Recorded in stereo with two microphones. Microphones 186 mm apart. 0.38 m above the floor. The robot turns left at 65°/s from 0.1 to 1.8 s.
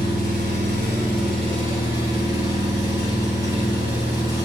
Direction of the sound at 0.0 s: 50° right.